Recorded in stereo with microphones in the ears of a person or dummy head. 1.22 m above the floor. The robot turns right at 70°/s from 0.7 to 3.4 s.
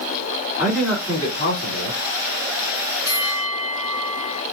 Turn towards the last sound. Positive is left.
turn(degrees=45)  # may be behind; listen again after turning